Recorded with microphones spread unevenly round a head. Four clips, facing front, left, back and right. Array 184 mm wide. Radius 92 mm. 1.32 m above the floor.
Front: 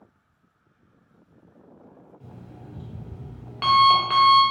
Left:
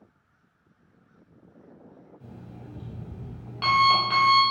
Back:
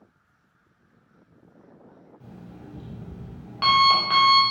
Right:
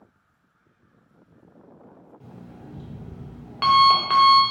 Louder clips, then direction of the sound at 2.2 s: Right 1 dB, back 2 dB; 95° right.